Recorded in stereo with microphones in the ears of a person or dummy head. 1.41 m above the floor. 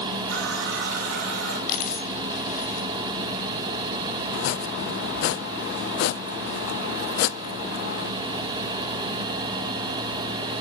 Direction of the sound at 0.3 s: 80° right.